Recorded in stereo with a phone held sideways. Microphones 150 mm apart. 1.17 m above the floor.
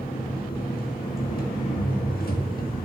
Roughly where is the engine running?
Left.